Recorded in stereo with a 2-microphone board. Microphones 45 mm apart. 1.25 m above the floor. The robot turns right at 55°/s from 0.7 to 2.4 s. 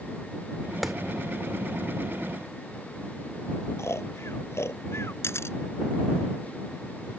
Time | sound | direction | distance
0.8 | a clap | centre (ahead or behind) | ?
3.8 | snoring | 75° left (ahead or behind) | ?
5.2 | a camera shutter | 70° left (ahead or behind) | ?